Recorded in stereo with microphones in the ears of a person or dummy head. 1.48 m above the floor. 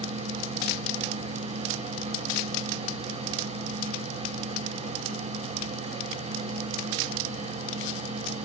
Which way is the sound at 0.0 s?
25° right (ahead or behind).